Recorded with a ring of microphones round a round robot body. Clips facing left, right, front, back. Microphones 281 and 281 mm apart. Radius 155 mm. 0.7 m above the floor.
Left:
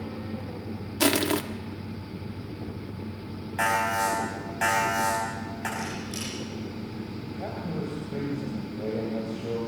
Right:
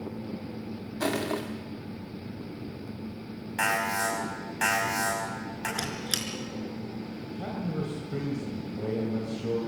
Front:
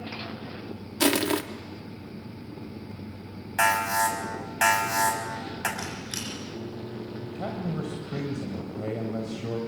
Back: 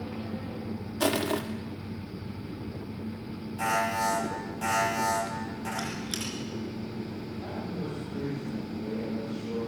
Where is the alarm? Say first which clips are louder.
Left 3 dB, front 2 dB; 15° right, 6 m.